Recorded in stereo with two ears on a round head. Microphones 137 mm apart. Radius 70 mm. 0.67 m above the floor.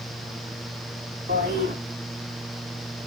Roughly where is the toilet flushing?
Right.